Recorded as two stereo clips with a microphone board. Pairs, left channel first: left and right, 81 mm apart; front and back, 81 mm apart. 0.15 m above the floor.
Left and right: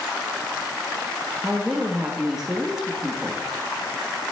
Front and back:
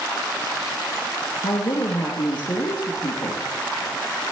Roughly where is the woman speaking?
Ahead.